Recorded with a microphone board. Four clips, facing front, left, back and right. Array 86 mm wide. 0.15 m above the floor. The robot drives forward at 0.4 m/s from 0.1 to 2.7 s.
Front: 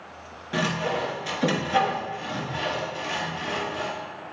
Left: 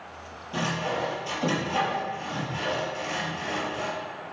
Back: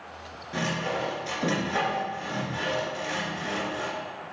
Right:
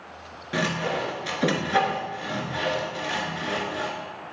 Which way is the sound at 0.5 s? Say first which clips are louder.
Right 2 dB, front 3 dB; 65° right.